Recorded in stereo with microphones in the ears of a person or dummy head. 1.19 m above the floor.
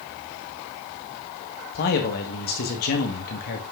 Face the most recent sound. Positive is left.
turn(degrees=50)  # may be behind; listen again after turning